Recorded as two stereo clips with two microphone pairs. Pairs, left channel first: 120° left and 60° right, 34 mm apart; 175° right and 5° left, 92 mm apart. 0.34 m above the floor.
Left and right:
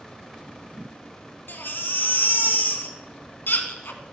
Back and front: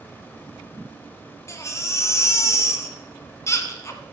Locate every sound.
1.5 s a baby crying: 125° left, 1.7 m